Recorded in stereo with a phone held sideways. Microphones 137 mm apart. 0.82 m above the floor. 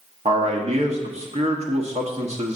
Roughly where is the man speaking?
Right.